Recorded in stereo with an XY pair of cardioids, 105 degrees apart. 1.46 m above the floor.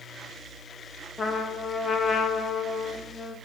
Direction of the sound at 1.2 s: 35° left.